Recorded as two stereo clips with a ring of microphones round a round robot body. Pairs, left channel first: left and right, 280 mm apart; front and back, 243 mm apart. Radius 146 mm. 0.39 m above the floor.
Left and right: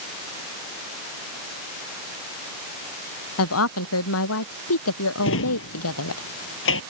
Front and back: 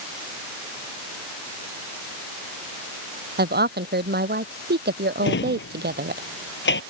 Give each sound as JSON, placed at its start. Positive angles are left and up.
{"t": 3.4, "sound": "a woman speaking", "azimuth_deg": 130}
{"t": 5.2, "sound": "a drawer", "azimuth_deg": 45}